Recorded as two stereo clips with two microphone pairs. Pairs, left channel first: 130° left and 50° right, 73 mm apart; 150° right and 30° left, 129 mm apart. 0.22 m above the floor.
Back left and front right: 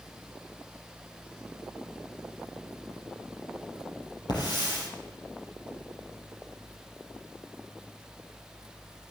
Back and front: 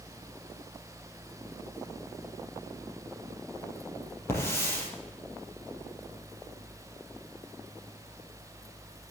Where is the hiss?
140° left, 4 m.